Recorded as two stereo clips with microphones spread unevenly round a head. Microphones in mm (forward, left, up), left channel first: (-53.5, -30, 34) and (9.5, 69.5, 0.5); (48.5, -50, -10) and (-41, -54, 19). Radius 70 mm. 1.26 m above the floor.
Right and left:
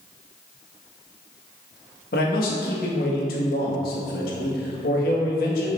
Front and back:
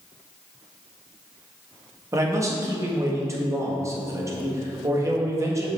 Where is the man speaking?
120° right, 1.8 m.